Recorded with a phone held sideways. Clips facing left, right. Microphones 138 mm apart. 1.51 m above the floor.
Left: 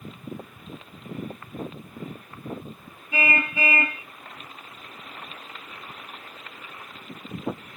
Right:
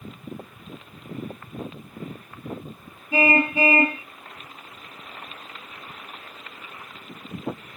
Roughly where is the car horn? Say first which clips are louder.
Right 6 dB; right.